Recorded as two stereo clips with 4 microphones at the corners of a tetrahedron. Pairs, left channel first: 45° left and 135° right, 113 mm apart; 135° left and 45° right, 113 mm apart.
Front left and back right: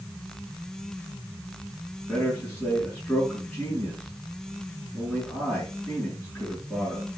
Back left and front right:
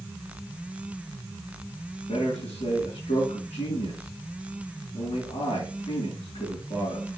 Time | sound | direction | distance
2.1 | a man speaking | 130° left | 5.5 m